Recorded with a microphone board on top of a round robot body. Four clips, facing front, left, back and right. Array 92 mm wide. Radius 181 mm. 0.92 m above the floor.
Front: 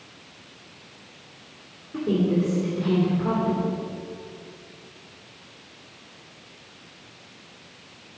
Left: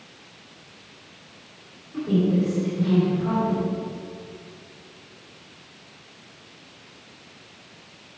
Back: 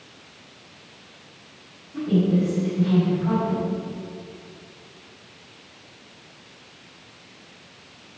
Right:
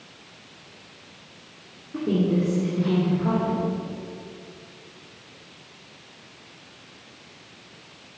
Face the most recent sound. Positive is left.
turn(degrees=-50)